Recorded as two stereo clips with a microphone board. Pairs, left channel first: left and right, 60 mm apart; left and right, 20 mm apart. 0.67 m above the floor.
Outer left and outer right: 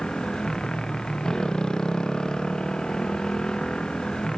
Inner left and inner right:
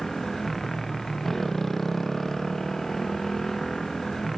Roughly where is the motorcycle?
Centre.